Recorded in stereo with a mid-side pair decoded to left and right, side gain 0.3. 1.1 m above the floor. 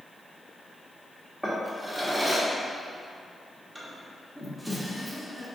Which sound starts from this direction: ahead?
A drawer, at 1.4 s.